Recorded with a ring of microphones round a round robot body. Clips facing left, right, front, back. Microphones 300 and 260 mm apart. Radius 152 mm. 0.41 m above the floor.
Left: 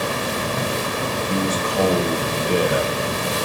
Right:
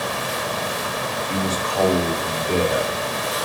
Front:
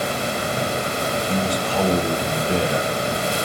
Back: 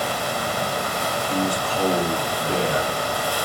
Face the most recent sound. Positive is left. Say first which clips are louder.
# left 2 dB, back 1 dB
turn(degrees=15)